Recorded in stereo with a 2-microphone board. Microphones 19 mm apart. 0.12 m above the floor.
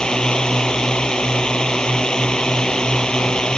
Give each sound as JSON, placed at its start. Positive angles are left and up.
{"t": 0.0, "sound": "a drone", "side_deg": 50}